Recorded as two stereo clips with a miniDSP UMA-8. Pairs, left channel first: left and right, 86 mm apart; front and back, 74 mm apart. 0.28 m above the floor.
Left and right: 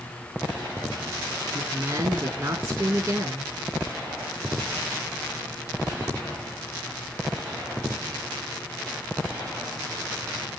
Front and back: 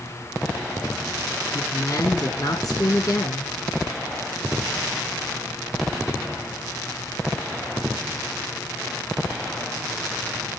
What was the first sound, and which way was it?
A woman speaking, 35° right.